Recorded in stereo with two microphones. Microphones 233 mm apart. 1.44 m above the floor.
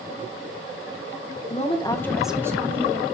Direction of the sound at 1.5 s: 30° left (ahead or behind).